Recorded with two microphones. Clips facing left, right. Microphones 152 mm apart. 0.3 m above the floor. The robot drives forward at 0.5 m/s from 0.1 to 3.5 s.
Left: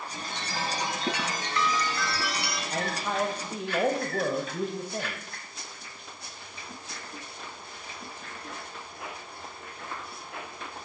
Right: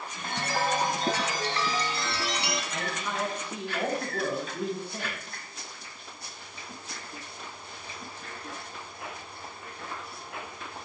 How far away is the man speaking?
About 1.2 m.